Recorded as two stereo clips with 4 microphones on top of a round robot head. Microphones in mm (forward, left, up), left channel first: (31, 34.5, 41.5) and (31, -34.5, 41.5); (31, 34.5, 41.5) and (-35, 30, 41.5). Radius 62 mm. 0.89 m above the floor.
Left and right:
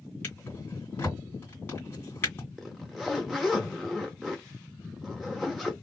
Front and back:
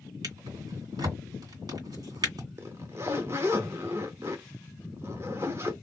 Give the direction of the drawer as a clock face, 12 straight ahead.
7 o'clock.